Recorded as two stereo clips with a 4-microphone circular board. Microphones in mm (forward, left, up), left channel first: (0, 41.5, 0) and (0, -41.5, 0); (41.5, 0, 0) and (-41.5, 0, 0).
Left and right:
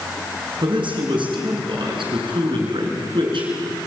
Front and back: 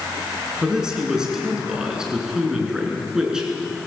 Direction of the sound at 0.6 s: 100° right.